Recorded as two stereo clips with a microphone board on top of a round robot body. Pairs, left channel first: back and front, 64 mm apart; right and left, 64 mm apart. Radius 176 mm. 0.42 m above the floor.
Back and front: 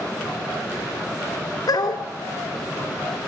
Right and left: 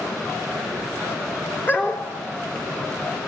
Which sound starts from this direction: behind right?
A dog barking, at 1.7 s.